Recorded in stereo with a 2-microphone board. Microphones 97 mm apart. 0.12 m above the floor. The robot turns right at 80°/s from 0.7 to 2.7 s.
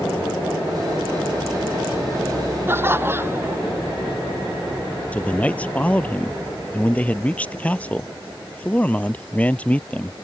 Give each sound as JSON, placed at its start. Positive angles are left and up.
{"t": 2.7, "sound": "laughter", "side_deg": -20}
{"t": 5.1, "sound": "a man speaking", "side_deg": 15}